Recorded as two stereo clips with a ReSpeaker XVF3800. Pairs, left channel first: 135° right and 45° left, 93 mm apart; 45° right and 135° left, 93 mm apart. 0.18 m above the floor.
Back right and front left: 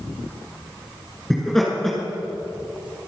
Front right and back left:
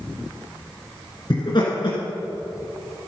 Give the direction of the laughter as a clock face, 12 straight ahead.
2 o'clock.